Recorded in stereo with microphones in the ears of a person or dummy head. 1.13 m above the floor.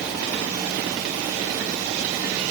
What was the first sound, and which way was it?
Only background noise.